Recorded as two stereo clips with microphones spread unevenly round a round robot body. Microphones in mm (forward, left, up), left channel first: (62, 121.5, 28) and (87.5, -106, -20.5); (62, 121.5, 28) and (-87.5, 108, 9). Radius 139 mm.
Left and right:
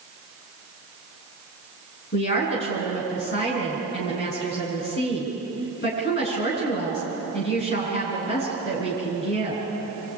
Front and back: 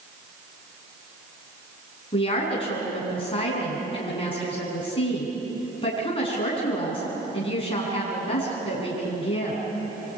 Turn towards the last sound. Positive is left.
turn(degrees=55)